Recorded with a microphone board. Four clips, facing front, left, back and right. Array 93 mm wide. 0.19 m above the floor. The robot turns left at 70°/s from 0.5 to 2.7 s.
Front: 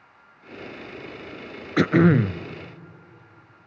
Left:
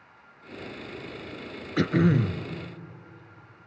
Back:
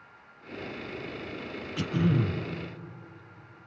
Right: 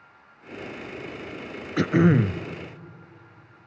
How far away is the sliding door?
I don't hear a sliding door.